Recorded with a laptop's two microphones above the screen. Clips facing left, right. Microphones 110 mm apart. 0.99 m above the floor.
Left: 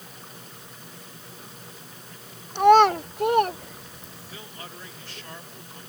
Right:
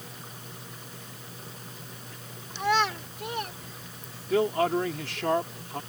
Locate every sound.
2.5 s a child speaking: 50° left (ahead or behind); by 4.4 s 60° left (ahead or behind)
4.3 s a man speaking: 65° right (ahead or behind)